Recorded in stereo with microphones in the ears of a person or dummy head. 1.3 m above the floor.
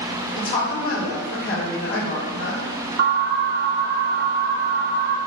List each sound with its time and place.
0.4 s a woman speaking: 65° left (ahead or behind), 1.8 m
3.0 s an alarm: 60° right (ahead or behind), 0.9 m